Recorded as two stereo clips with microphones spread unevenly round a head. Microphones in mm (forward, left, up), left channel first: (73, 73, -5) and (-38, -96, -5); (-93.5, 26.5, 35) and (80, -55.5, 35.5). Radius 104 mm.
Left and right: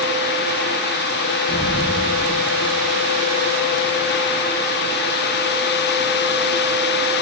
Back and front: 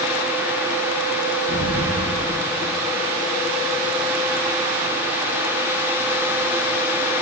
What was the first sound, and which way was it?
An explosion, 55° right.